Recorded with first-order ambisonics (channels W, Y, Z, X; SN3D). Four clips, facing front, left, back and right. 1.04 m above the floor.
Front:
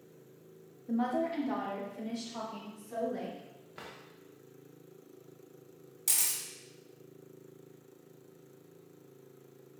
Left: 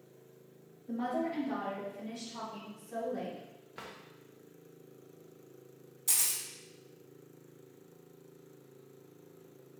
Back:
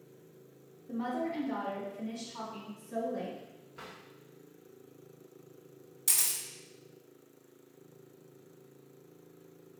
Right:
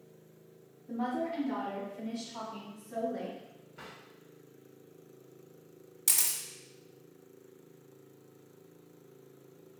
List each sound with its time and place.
0.9 s a woman speaking: 20° left, 1.1 m; by 3.4 s 20° right, 3.5 m
3.8 s a drawer: 55° left, 0.7 m
6.1 s a camera shutter: 90° right, 0.8 m